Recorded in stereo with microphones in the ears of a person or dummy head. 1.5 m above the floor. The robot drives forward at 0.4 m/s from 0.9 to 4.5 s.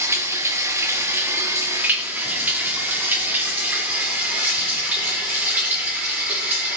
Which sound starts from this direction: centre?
Running water, at 0.0 s.